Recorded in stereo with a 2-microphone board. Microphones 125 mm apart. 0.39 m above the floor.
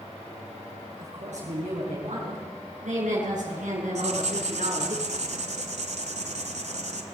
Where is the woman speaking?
65° right (ahead or behind), 6 m; by 5.0 s 75° right (ahead or behind), 4.5 m.